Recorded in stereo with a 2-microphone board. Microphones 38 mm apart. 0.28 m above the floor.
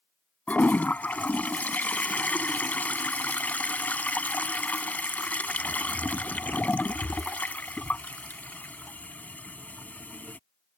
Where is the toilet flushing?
45° left (ahead or behind).